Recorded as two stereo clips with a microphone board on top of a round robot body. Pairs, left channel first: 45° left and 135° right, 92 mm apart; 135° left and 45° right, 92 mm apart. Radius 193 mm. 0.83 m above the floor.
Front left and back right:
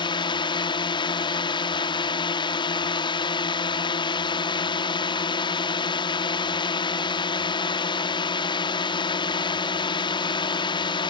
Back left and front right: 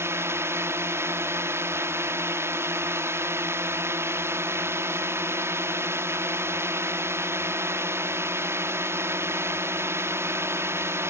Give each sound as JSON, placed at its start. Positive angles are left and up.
{"t": 0.0, "sound": "a drone", "azimuth_deg": 15}